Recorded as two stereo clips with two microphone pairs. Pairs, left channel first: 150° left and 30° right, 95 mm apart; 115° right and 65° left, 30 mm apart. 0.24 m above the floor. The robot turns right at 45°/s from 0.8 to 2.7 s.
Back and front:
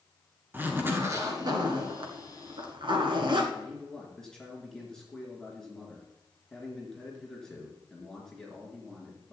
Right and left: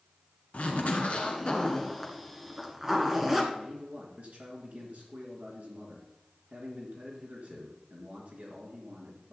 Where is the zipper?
95° right, 1.5 m; by 3.4 s 10° right, 1.5 m.